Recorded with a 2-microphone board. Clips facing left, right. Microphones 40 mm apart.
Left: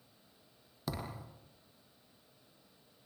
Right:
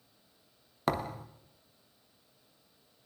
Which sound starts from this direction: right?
A thud, at 0.9 s.